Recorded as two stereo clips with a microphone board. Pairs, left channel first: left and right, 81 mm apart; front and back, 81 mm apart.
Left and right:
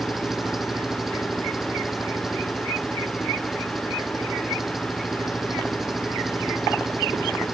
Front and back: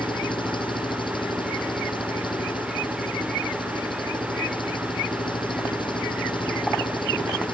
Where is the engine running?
5° right.